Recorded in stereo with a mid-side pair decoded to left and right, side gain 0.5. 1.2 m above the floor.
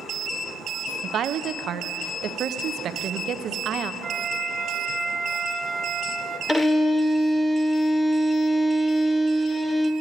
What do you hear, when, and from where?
1.0 s a woman speaking: 55° right, 0.6 m
4.0 s a flute: 40° right, 1.3 m
6.5 s a violin: 15° left, 0.7 m